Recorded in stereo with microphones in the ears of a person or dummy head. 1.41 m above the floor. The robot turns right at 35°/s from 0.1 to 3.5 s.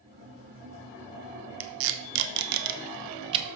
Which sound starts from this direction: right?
Tape being pulled, at 1.6 s.